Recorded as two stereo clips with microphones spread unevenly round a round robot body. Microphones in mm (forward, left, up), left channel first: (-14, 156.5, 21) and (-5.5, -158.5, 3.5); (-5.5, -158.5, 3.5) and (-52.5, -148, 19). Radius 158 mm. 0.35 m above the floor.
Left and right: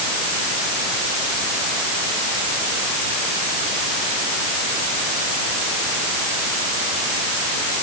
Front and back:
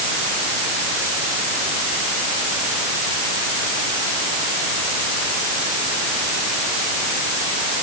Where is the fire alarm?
I don't hear a fire alarm.